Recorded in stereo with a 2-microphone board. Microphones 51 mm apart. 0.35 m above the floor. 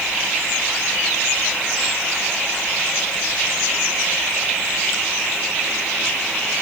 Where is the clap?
I don't hear a clap.